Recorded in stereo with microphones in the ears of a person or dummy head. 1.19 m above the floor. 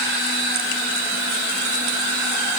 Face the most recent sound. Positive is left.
No sound to turn to.